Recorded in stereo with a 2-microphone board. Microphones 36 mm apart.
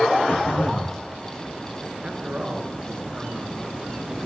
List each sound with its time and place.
0.3 s throat clearing: 75° left (ahead or behind), 4 m
2.0 s a man speaking: 35° right (ahead or behind), 2.5 m